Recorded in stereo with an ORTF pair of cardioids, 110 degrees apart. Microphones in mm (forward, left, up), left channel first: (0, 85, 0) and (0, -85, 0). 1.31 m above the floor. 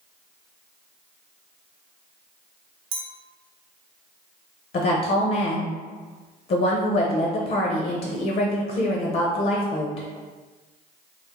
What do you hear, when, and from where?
2.9 s a clink: 35° right, 0.9 m
4.7 s a woman speaking: 50° left, 0.7 m